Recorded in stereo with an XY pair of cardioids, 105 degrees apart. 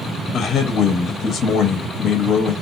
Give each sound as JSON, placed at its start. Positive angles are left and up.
{"t": 0.3, "sound": "a man speaking", "azimuth_deg": 55, "distance_m": 0.7}